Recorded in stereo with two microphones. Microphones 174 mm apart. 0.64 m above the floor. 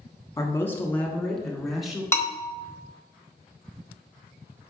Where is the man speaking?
20° left (ahead or behind), 1.2 m; by 2.0 s centre (ahead or behind), 1.9 m.